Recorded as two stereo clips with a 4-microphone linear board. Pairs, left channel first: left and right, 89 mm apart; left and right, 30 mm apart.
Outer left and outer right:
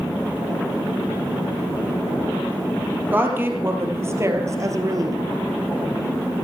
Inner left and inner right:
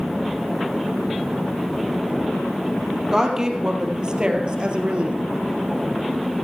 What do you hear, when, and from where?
3.1 s a woman speaking: 20° right (ahead or behind), 2.5 m; by 5.2 s 40° right (ahead or behind), 2 m